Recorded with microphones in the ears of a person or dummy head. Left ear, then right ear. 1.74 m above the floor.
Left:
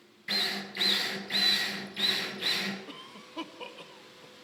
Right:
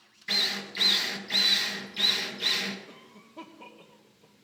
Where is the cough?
55° left (ahead or behind), 1.4 m.